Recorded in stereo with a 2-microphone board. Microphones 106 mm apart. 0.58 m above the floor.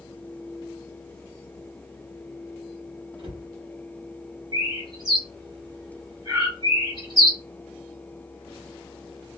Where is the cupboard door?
50° right (ahead or behind), 1.1 m.